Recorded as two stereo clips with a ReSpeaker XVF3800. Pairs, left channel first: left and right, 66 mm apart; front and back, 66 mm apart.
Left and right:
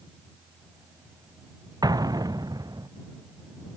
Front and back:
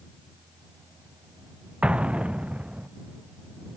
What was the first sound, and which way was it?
An explosion, 110° right.